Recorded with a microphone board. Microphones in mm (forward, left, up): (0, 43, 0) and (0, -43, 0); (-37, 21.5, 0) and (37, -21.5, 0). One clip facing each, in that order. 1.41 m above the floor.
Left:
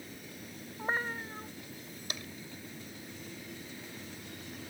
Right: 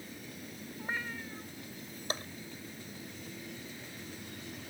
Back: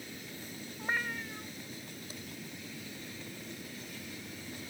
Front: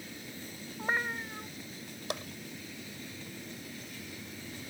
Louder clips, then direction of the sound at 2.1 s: Right 6 dB, front 14 dB; 35° right.